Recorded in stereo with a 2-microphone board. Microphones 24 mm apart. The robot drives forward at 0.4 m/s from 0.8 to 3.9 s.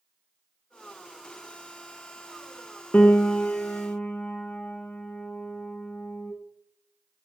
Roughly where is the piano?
Left.